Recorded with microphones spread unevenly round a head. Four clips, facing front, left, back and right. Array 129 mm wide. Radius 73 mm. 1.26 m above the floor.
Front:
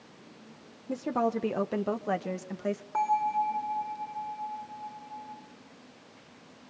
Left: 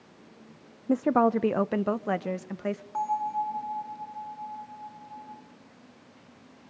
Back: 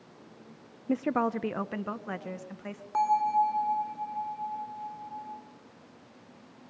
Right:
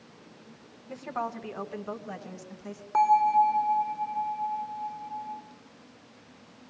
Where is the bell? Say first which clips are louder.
Right 10 dB, back 3 dB; 75° right, 1.6 m.